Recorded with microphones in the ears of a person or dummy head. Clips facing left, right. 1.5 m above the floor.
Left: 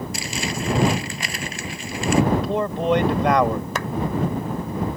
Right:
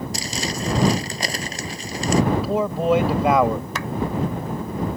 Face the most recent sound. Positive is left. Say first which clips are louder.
# left 2 dB
turn(degrees=45)  # may be behind; listen again after turning